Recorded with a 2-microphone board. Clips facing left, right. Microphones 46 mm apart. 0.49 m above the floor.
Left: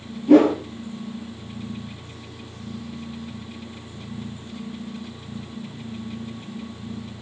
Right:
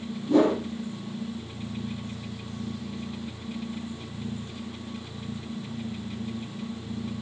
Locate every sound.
0.3 s a whoosh: 85° left, 5 m